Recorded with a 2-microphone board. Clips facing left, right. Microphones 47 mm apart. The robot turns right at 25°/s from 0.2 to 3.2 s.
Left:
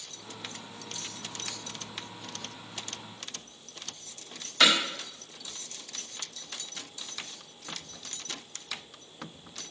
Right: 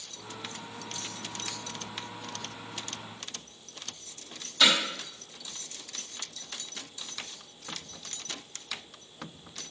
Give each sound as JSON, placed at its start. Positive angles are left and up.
{"t": 4.6, "sound": "hammering", "side_deg": 70, "distance_m": 1.8}